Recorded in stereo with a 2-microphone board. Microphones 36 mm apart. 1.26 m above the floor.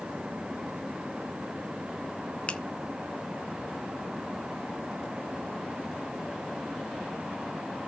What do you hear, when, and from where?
2.5 s a finger snap: 35° left (ahead or behind), 0.8 m